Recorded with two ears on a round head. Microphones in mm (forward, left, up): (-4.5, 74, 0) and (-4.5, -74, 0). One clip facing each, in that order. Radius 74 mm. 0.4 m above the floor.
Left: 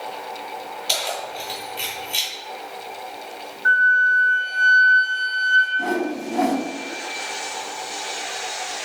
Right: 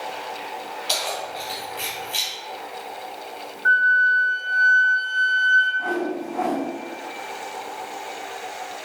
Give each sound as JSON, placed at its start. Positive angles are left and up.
{"t": 0.9, "sound": "keys jangling", "side_deg": 10, "distance_m": 2.0}
{"t": 3.6, "sound": "a flute", "side_deg": 20, "distance_m": 1.0}
{"t": 5.8, "sound": "a whoosh", "side_deg": 50, "distance_m": 0.5}